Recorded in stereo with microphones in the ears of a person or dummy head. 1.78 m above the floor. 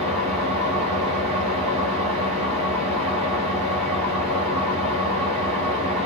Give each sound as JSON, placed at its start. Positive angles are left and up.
{"t": 0.0, "sound": "an engine running", "side_deg": -30, "distance_m": 1.1}